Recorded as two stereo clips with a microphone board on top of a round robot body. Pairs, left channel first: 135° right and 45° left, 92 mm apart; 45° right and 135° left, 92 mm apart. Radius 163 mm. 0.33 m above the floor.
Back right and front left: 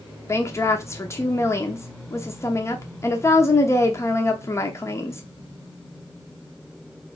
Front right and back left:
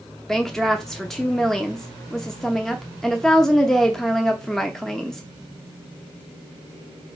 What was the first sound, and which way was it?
A woman speaking, 125° right.